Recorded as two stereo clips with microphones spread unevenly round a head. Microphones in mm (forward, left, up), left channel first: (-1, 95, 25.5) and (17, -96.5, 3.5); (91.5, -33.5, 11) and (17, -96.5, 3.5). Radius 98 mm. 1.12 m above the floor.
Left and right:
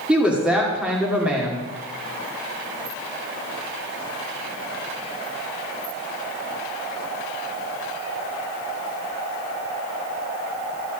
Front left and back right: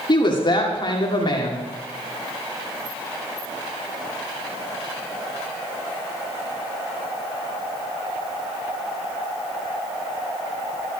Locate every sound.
0.1 s a woman speaking: straight ahead, 2.5 m